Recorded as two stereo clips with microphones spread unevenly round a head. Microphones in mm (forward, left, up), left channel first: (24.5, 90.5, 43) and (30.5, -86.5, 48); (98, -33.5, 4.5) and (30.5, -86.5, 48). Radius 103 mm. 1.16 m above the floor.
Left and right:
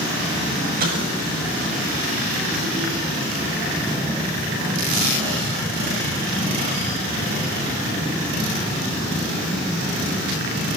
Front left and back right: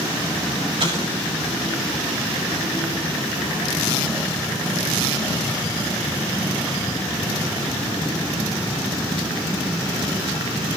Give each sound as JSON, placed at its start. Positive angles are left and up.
{"t": 0.8, "sound": "an explosion", "azimuth_deg": -135, "distance_m": 6.0}